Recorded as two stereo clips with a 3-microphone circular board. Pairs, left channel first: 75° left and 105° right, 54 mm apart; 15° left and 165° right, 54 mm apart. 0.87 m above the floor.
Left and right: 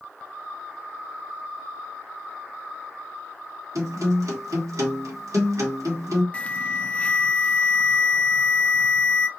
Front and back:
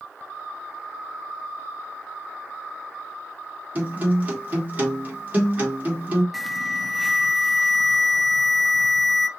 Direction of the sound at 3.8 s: 105° right.